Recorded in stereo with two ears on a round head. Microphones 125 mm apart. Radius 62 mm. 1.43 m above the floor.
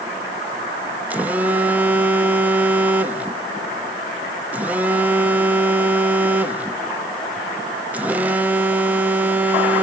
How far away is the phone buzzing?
About 0.9 m.